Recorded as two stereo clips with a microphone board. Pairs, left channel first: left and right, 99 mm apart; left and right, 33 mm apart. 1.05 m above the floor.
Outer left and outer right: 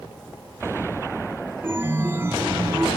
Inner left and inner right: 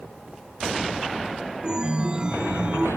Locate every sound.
1.6 s a chime: 25° right (ahead or behind), 1.1 m